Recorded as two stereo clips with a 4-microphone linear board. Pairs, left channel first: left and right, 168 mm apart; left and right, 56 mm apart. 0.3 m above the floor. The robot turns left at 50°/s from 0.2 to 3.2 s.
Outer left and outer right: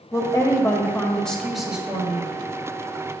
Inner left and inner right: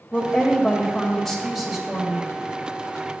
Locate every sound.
0.1 s a woman speaking: 20° left (ahead or behind), 1.2 m; by 2.3 s 15° right (ahead or behind), 1.2 m